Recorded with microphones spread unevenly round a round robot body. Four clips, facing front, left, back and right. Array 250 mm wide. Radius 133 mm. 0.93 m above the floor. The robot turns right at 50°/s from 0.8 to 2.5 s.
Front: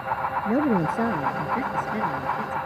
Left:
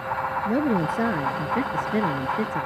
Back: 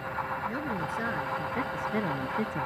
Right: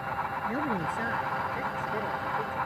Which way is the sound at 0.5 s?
35° left.